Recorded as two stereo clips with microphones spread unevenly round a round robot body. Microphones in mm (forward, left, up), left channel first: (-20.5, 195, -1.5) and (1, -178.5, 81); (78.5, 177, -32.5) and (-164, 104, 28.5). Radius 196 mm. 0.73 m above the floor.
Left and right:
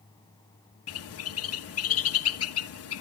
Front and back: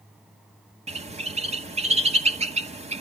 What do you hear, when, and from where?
0.9 s a bird: 125° left, 1.3 m